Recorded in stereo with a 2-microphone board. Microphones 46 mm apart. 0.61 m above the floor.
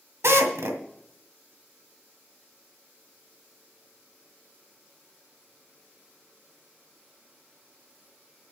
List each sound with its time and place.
0.2 s a drill: 80° right, 1.9 m